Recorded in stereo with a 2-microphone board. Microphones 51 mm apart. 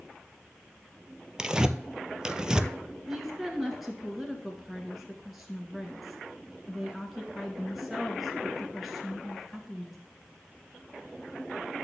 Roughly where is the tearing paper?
Centre.